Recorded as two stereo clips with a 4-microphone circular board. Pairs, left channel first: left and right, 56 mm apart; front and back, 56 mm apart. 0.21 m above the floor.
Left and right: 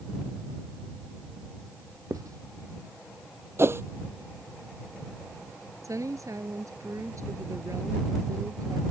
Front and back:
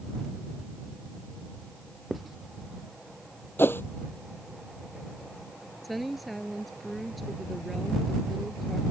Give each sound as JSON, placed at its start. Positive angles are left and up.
{"t": 2.1, "sound": "writing", "azimuth_deg": -90}
{"t": 3.6, "sound": "a whoosh", "azimuth_deg": -50}
{"t": 5.8, "sound": "a woman speaking", "azimuth_deg": -90}